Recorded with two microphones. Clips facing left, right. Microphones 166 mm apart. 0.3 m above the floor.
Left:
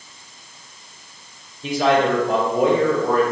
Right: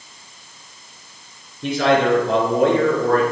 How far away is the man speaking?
About 4.5 m.